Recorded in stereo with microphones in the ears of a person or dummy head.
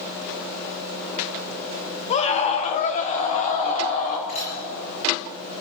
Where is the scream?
35° left (ahead or behind), 1.4 m; by 4.2 s 40° left (ahead or behind), 2.5 m.